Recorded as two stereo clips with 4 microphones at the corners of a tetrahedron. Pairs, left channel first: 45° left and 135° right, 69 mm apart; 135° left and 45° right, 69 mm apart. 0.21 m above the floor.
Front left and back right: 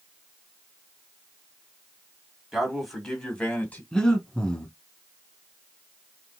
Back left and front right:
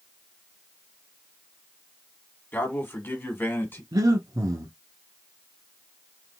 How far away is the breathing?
About 0.9 m.